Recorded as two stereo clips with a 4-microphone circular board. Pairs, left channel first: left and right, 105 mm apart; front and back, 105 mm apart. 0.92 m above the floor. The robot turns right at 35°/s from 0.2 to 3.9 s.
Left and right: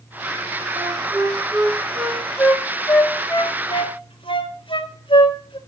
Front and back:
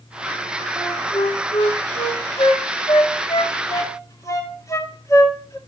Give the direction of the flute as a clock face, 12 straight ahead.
2 o'clock.